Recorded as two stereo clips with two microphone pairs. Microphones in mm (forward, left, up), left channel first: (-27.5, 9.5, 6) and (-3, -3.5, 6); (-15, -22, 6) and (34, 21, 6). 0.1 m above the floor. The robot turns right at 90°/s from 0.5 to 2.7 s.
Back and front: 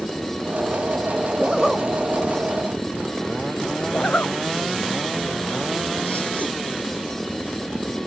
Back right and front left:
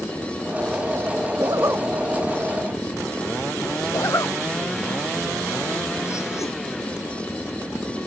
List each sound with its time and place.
1.4 s a zipper: 40° left; by 1.9 s 85° left
3.9 s a zipper: 175° right